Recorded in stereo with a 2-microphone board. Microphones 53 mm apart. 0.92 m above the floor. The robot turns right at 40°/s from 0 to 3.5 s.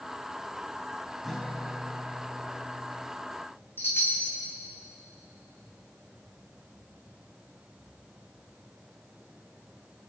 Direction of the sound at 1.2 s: Straight ahead.